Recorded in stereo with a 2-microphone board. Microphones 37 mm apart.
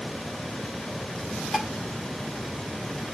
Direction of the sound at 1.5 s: Centre (ahead or behind).